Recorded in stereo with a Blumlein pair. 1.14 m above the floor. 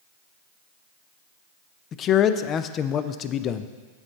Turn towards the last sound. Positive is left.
turn(degrees=30)